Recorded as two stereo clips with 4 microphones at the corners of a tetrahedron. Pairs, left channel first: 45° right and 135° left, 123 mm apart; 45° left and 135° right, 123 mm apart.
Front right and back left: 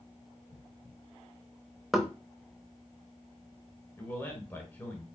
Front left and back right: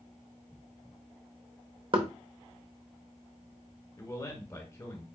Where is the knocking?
135° right, 0.8 m.